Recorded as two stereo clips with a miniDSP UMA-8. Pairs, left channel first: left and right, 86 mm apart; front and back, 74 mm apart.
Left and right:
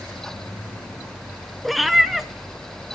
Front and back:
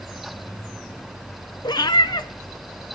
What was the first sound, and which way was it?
A cat meowing, straight ahead.